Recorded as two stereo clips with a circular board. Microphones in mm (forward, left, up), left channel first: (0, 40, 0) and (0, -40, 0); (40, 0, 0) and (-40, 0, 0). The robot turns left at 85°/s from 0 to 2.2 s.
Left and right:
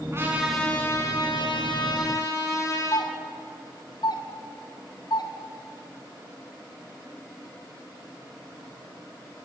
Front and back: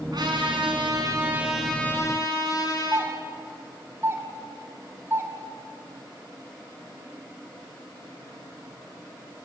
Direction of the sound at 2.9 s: 120° left.